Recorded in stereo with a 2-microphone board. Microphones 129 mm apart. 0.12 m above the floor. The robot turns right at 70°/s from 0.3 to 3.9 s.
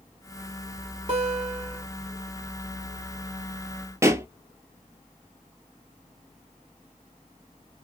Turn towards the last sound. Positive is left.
turn(degrees=-20)  # may be behind; listen again after turning